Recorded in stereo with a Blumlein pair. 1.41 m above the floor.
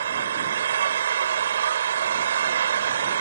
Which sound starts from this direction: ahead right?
An engine running, at 0.0 s.